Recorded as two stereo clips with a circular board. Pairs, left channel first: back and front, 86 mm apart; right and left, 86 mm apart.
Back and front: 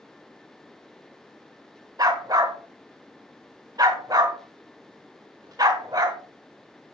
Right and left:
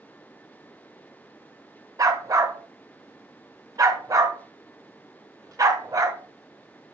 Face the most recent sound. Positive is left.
turn(degrees=40)